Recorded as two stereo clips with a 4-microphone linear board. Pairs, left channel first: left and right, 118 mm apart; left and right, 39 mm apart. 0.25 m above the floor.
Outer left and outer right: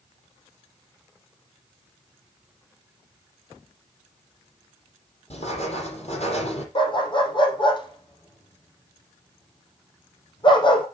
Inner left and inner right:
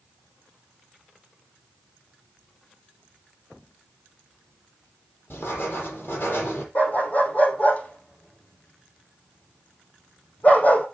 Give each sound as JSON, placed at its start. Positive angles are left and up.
{"t": 5.3, "sound": "writing", "side_deg": 60, "distance_m": 6.5}
{"t": 6.8, "sound": "a dog barking", "side_deg": 45, "distance_m": 3.0}